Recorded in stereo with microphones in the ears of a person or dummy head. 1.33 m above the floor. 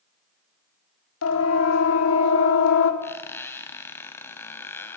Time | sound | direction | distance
1.2 | a siren | 85° left | 4.5 m
3.0 | a squeak | 15° left (ahead or behind) | 1.7 m